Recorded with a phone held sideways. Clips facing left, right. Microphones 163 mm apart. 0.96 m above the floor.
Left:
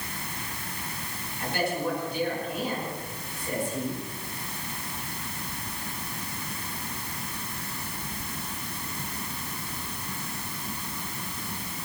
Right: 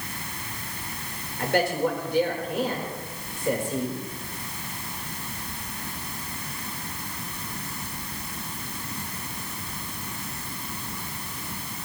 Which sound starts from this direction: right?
A man speaking, at 1.4 s.